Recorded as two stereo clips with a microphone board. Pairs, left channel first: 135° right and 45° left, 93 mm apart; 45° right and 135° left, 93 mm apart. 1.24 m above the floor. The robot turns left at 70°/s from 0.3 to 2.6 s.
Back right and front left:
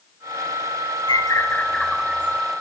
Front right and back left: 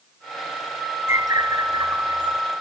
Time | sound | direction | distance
1.1 | a bird | 165° right | 2 m